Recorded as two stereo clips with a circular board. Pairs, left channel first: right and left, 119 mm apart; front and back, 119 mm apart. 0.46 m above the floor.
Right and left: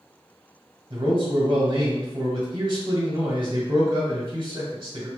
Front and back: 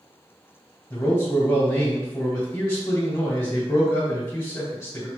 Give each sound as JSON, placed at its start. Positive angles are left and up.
{"t": 0.9, "sound": "a man speaking", "azimuth_deg": 60, "distance_m": 1.9}